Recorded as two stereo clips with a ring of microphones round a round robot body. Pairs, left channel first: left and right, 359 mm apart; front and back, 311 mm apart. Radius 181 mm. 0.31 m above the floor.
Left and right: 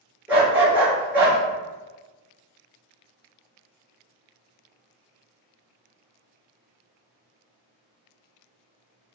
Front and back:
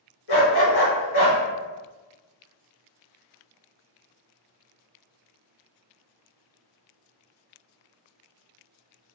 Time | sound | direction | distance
0.3 | a dog barking | 5° right | 1.9 m